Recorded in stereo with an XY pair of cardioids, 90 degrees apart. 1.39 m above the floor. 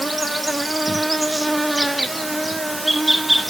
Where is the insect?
10° right, 1.2 m.